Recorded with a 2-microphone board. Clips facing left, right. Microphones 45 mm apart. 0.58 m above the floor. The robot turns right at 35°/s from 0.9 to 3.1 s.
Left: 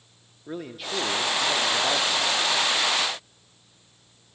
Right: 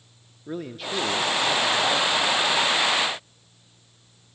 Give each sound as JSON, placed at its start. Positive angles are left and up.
{"t": 0.5, "sound": "a man speaking", "azimuth_deg": 5, "distance_m": 0.8}